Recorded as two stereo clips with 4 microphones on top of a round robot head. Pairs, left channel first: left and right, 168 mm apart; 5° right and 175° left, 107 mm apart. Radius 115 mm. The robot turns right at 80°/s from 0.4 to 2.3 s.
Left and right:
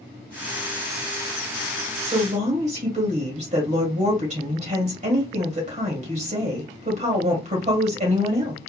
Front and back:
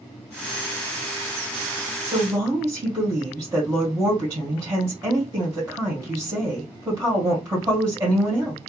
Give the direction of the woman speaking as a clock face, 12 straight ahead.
5 o'clock.